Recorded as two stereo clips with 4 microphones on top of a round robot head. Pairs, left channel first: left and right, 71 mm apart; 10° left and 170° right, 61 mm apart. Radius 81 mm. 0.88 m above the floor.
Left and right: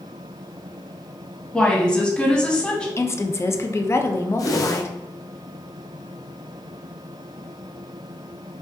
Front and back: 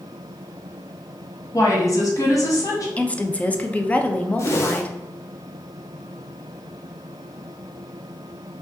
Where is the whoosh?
50° left, 0.8 m.